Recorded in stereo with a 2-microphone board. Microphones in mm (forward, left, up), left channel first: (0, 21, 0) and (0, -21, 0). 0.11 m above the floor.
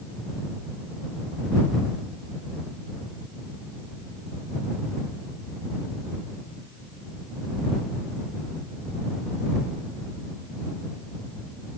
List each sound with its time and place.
Only background noise.